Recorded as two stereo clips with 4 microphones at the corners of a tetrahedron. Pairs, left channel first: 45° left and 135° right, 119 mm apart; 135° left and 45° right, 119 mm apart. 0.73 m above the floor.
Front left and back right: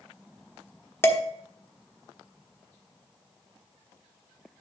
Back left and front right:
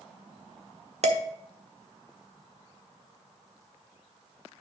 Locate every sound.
1.0 s dishes clattering: 25° right, 1.2 m